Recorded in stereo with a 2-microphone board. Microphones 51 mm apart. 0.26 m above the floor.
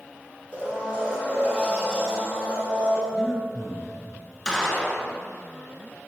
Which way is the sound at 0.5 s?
20° right (ahead or behind).